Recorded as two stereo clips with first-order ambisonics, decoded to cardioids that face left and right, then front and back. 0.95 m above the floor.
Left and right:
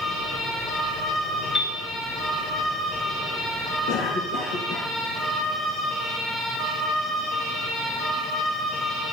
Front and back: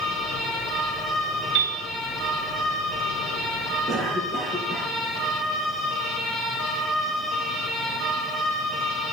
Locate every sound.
1.6 s a piano: 160° left, 2 m
3.9 s a cough: 115° left, 1.4 m